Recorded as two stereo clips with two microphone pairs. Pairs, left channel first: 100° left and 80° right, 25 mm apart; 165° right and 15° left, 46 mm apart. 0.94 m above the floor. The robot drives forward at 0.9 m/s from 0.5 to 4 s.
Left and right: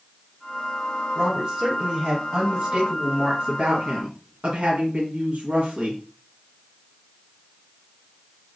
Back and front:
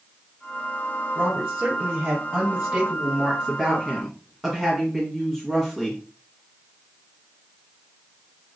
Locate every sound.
1.1 s a woman speaking: 20° right, 3 m; by 6.0 s 70° right, 1.2 m